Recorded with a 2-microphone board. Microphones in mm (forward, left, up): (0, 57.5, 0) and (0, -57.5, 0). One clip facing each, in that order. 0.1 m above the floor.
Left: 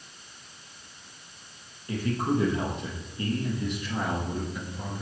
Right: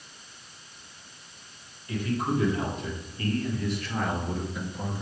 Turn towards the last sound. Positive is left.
turn(degrees=-10)  # may be behind; listen again after turning